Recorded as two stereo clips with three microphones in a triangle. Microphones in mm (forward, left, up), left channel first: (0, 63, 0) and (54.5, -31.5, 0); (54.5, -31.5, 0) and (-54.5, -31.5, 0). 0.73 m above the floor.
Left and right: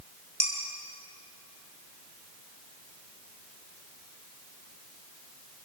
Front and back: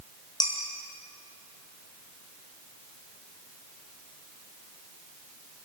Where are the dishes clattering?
50° right, 5.5 m.